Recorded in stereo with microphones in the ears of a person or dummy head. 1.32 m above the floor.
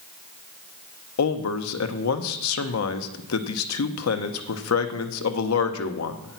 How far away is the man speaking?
About 0.9 m.